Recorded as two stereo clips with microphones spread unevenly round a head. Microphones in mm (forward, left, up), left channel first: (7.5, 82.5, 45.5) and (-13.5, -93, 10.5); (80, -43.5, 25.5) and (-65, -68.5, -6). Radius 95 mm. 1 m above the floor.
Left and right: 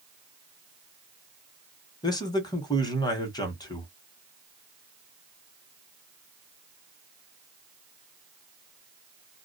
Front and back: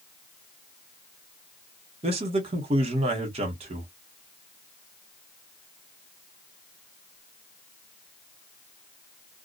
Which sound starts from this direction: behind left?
A man speaking, at 2.0 s.